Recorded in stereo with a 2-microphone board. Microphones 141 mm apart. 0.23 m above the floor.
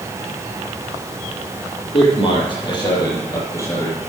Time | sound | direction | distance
1.9 | a man speaking | 40° left (ahead or behind) | 5.5 m